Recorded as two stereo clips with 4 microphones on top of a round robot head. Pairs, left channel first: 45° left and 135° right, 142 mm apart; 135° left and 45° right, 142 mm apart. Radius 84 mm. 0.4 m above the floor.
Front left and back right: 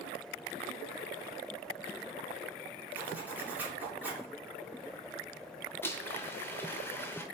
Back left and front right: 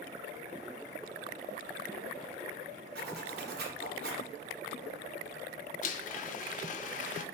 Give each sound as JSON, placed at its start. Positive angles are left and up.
{"t": 3.0, "sound": "a zipper", "azimuth_deg": -55, "distance_m": 1.3}
{"t": 5.8, "sound": "a blender", "azimuth_deg": 120, "distance_m": 0.5}